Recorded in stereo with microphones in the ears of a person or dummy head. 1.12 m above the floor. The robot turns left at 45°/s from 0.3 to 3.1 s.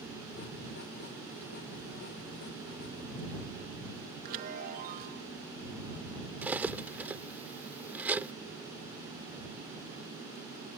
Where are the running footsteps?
No running footsteps in this recording.